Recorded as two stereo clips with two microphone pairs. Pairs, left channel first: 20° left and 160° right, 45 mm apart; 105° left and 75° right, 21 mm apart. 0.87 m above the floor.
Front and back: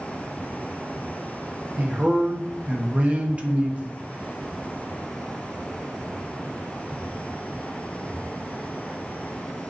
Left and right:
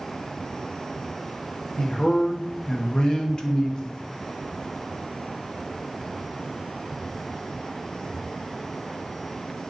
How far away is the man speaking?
About 0.8 m.